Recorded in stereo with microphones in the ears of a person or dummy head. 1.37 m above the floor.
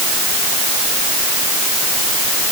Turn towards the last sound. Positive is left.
No sound to turn to.